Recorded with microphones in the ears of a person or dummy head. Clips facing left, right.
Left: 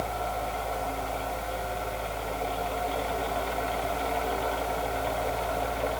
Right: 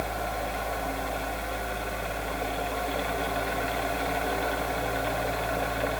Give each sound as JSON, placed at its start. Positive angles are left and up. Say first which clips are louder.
{"t": 0.0, "sound": "a fan", "louder": "even", "side_deg": -15, "distance_m": 1.3}